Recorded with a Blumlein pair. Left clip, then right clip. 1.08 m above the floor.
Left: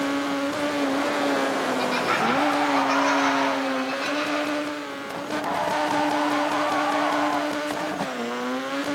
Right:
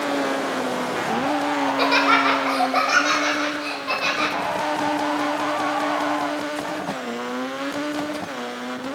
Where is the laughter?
25° right, 0.6 m; by 4.3 s 50° right, 2.5 m.